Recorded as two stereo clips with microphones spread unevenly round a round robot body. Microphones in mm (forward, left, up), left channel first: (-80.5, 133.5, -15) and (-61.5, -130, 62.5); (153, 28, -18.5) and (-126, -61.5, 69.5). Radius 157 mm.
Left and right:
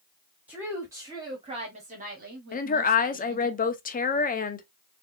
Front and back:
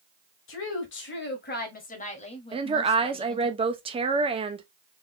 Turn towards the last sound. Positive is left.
turn(degrees=115)